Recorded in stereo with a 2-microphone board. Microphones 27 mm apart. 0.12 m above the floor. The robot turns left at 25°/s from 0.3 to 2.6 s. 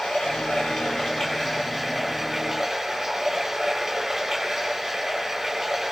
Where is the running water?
50° left, 9 m; by 5.9 s 10° right, 9 m.